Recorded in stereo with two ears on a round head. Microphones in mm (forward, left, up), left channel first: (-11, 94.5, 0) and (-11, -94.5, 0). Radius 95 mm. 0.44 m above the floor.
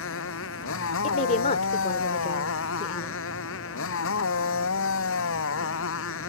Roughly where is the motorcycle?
Left.